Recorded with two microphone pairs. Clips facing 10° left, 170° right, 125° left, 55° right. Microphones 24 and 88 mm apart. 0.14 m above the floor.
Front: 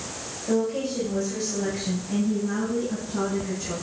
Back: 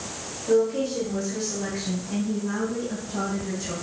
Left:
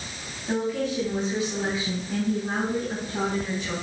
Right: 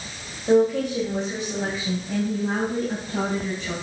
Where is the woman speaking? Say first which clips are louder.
Back 3 dB, right 8 dB; 90° right, 4 m; by 3.7 s 100° right, 6 m.